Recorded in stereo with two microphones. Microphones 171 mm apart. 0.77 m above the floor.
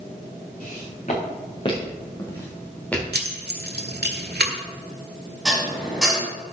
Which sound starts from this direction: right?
Keys jangling, at 3.1 s.